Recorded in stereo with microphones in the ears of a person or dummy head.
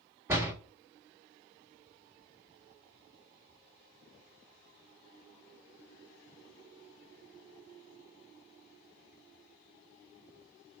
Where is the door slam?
15° right (ahead or behind), 1.2 m.